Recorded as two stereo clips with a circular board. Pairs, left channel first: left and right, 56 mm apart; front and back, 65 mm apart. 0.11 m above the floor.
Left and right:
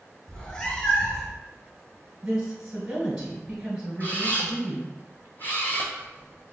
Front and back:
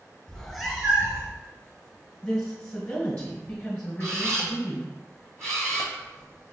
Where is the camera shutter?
140° left, 0.9 m.